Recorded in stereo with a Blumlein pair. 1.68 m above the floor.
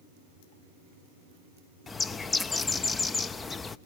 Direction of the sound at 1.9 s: 15° left.